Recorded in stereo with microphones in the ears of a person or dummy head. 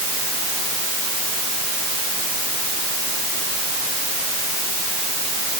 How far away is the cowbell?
I don't hear a cowbell.